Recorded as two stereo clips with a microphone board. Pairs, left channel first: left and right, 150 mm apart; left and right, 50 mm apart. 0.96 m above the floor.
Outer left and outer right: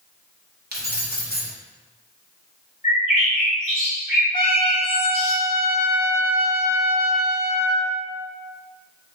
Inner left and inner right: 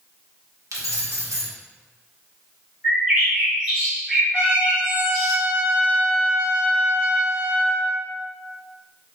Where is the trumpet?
60° right (ahead or behind), 1.6 m.